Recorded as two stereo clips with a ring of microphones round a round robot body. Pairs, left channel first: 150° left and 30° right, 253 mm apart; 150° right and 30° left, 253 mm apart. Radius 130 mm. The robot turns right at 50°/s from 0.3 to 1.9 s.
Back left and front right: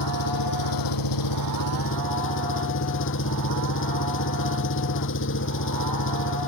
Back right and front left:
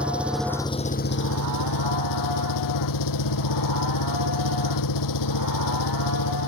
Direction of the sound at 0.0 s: 115° left.